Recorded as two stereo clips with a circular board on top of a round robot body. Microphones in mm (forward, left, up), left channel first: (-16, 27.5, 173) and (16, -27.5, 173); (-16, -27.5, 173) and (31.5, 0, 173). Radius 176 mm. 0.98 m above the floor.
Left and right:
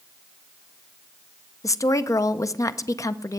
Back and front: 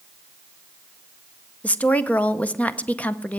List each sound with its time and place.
1.6 s a woman speaking: 150° left, 0.8 m